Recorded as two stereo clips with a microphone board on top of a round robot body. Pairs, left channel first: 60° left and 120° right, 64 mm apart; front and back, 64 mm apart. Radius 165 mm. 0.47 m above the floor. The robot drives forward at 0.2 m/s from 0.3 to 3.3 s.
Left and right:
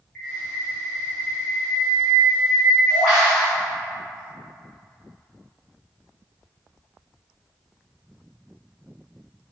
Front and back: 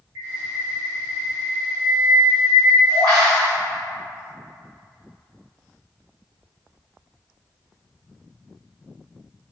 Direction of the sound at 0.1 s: 135° left.